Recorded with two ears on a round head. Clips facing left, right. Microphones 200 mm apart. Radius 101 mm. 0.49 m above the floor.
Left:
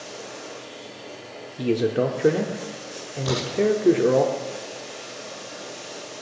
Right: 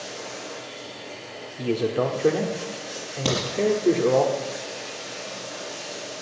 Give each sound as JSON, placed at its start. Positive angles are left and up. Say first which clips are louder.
{"t": 0.0, "sound": "running water", "louder": "right 1 dB", "side_deg": -60, "distance_m": 7.0}
{"t": 1.6, "sound": "a man speaking", "louder": "left 2 dB", "side_deg": 20, "distance_m": 1.0}
{"t": 3.2, "sound": "a crack", "louder": "right 1 dB", "side_deg": -75, "distance_m": 7.0}